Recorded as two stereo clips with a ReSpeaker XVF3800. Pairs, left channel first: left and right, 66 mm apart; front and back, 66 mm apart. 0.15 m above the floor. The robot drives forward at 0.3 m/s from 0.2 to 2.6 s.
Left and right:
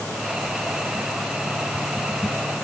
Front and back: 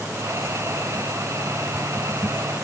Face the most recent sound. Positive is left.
No sound to turn to.